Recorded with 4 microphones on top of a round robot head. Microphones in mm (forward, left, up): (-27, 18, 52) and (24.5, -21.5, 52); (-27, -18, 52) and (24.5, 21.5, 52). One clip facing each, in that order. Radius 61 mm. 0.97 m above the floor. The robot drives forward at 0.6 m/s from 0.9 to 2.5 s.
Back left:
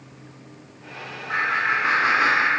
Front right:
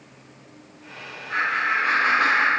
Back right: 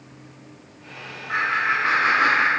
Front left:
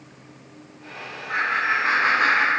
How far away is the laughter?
About 3 m.